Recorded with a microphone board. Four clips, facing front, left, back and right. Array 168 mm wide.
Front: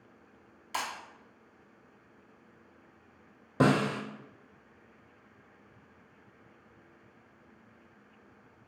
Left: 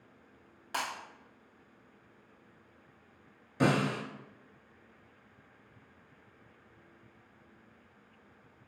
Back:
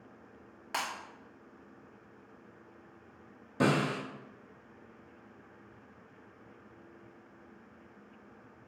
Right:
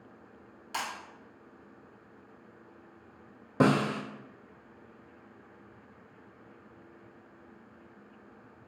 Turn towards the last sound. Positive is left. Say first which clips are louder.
# right 3 dB, front 3 dB
turn(degrees=-60)